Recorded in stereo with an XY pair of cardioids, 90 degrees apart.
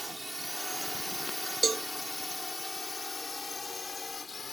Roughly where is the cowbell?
Ahead right.